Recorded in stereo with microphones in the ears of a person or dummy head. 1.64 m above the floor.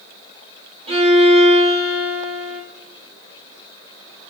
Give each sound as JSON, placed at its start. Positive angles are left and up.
{"t": 0.9, "sound": "a violin", "side_deg": -35, "distance_m": 0.7}